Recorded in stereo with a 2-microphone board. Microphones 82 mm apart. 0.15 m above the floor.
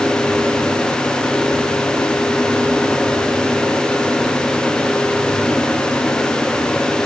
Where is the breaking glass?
No breaking glass in this recording.